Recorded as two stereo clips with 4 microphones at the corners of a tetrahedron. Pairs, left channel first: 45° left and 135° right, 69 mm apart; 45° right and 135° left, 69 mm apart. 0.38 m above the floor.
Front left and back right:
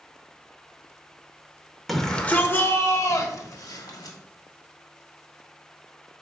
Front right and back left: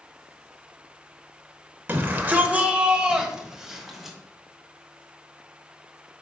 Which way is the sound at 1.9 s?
135° left.